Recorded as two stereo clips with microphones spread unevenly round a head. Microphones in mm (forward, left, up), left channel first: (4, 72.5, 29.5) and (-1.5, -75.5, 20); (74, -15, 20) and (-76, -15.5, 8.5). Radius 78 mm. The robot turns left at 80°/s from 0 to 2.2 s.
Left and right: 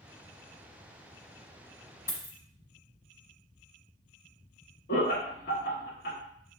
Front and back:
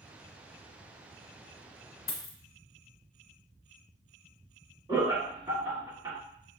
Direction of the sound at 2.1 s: 40° left.